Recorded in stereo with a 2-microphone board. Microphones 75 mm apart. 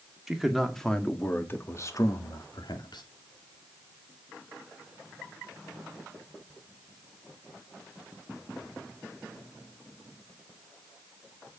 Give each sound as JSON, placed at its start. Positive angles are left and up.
{"t": 0.3, "sound": "a man speaking", "side_deg": -5, "distance_m": 2.5}